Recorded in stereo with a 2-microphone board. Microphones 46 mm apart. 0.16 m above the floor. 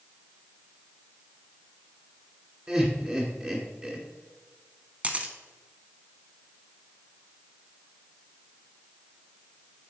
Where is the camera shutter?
30° right (ahead or behind), 0.9 m.